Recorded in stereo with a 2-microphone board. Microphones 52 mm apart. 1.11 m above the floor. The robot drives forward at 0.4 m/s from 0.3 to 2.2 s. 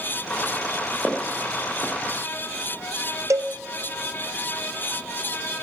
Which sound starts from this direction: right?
A cowbell, at 3.3 s.